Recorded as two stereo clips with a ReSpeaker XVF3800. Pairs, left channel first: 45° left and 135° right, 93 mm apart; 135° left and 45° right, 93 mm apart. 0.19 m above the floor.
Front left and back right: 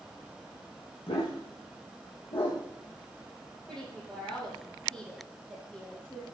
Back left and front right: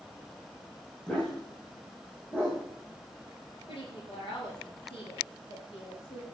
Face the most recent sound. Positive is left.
turn(degrees=125)